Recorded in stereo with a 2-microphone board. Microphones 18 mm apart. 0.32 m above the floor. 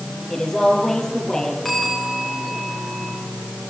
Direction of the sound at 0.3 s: 30° left (ahead or behind).